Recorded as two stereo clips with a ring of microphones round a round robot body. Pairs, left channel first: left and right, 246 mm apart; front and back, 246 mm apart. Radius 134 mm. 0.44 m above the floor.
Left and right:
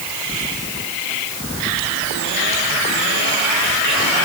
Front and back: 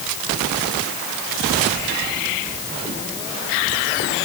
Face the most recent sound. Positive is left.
No sound to turn to.